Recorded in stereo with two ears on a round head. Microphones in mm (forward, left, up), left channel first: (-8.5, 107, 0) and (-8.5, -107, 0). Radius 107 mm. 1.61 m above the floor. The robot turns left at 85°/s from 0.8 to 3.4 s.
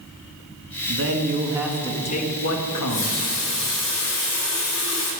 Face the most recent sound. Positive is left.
turn(degrees=80)